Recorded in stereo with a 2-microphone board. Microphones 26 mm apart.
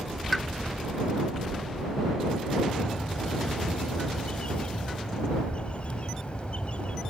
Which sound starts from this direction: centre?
A pop, at 0.3 s.